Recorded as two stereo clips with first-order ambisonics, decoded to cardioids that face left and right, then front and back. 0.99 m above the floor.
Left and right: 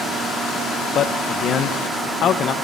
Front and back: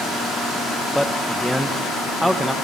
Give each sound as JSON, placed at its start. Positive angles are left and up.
{"t": 0.9, "sound": "a man speaking", "azimuth_deg": 90, "distance_m": 0.6}